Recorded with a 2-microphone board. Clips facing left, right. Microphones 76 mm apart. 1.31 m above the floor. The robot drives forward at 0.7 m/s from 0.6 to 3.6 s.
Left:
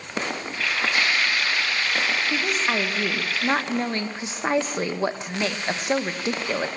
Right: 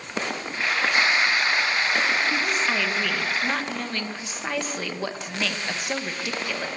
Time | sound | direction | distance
2.3 | a woman speaking | 15° left (ahead or behind) | 2 m